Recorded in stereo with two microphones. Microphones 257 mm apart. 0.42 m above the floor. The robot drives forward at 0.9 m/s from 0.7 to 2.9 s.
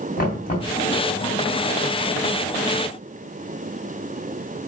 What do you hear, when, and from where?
0.2 s knocking: 35° left (ahead or behind), 2.5 m